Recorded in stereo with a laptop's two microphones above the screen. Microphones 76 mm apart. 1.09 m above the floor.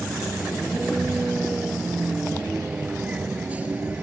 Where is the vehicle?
5° right (ahead or behind); by 4.0 s 20° right (ahead or behind).